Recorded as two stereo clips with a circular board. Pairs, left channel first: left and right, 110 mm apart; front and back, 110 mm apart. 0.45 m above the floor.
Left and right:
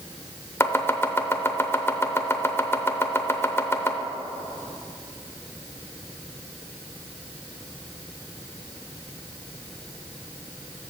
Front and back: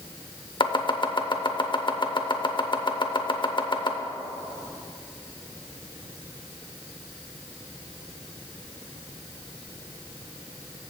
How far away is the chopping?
About 0.6 m.